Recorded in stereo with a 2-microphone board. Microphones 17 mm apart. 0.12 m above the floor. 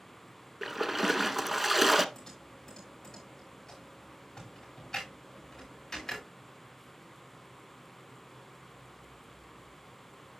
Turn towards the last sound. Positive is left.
turn(degrees=20)  # may be behind; listen again after turning